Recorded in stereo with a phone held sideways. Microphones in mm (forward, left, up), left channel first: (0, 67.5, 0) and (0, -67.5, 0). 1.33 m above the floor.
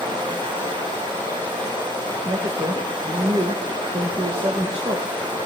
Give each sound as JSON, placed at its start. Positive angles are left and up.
{"t": 0.0, "sound": "running water", "side_deg": -35, "distance_m": 5.5}
{"t": 2.2, "sound": "a woman speaking", "side_deg": -45, "distance_m": 1.5}